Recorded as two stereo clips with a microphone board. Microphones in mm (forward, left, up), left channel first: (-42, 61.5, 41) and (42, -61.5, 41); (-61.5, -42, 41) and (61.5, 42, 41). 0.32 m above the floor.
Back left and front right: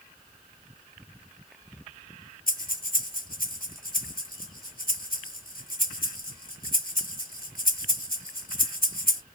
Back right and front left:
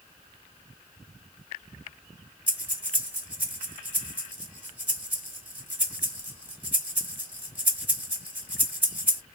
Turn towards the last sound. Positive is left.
turn(degrees=115)